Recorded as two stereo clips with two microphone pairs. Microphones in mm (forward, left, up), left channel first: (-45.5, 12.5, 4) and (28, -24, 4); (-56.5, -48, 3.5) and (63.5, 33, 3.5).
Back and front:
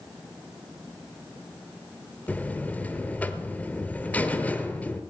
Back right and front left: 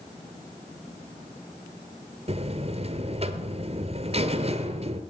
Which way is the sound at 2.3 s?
80° left.